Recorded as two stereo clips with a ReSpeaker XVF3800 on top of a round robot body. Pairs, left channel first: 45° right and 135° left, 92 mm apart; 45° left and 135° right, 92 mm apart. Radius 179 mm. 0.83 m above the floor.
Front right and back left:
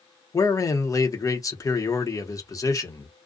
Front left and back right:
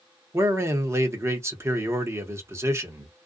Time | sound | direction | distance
0.3 | a man speaking | 85° right | 1.2 m